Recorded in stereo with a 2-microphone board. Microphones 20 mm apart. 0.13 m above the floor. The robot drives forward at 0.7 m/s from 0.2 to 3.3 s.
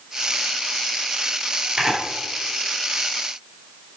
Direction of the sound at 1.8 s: 45° right (ahead or behind).